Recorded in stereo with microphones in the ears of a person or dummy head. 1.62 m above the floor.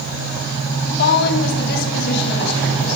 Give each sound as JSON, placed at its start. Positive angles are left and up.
{"t": 0.8, "sound": "a woman speaking", "side_deg": 65, "distance_m": 9.5}